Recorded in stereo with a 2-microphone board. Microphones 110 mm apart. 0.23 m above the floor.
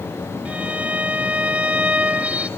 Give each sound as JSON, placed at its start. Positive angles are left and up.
{"t": 0.5, "sound": "a violin", "side_deg": -15, "distance_m": 0.9}